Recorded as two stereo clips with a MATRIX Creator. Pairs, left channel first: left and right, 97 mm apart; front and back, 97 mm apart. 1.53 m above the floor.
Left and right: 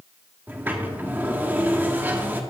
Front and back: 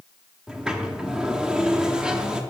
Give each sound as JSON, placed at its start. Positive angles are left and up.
{"t": 0.5, "sound": "a sliding door", "azimuth_deg": -115, "distance_m": 1.0}